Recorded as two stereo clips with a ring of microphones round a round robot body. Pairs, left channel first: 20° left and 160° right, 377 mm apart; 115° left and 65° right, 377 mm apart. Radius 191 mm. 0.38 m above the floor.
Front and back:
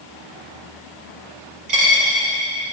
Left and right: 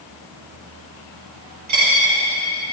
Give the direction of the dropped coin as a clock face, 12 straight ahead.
4 o'clock.